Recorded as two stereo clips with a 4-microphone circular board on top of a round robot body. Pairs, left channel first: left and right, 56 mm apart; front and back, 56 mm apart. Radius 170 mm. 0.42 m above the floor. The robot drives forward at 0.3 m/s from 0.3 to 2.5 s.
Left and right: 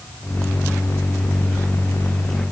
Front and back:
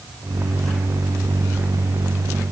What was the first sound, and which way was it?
Only background noise.